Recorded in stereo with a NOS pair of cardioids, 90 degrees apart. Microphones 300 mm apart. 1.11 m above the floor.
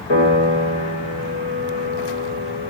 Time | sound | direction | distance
0.1 | a piano | 60° left | 5.5 m